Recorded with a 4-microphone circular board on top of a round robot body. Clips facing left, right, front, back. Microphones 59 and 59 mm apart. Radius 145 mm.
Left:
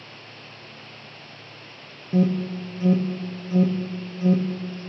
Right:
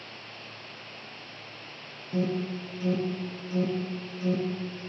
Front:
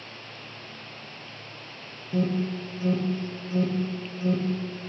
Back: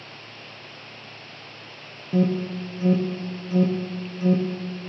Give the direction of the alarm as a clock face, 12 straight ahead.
8 o'clock.